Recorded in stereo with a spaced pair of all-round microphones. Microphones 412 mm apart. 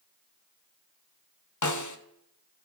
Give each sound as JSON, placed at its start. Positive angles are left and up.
{"t": 1.6, "sound": "a snare drum", "side_deg": 45, "distance_m": 0.7}